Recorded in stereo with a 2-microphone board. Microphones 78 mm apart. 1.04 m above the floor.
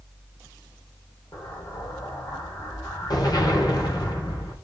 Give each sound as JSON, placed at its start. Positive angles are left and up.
{"t": 1.3, "sound": "an explosion", "side_deg": 60, "distance_m": 4.0}